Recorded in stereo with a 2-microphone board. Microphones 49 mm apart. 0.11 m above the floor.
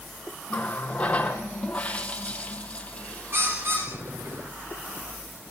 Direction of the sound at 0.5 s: 25° left (ahead or behind).